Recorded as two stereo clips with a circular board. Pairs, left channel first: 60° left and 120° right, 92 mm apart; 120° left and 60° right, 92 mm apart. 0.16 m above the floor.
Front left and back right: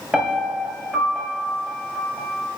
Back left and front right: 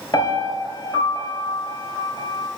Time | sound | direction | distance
0.1 | a piano | 160° left | 1.8 m